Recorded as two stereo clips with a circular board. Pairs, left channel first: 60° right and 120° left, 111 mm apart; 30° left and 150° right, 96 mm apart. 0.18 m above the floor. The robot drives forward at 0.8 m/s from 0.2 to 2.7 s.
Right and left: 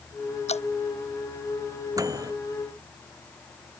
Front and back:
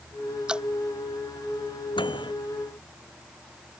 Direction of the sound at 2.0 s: 60° left.